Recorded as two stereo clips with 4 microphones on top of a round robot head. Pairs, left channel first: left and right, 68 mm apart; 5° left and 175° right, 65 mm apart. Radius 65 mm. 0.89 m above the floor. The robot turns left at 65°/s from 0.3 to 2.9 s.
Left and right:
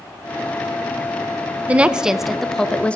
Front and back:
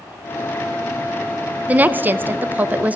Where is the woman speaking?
135° right, 0.6 m; by 3.0 s 145° left, 0.6 m.